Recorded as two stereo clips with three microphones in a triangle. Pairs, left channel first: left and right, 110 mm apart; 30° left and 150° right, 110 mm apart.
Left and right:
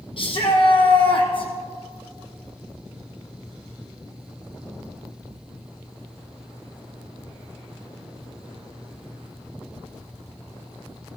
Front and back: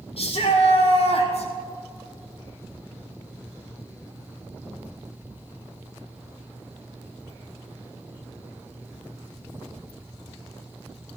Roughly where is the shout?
Ahead left.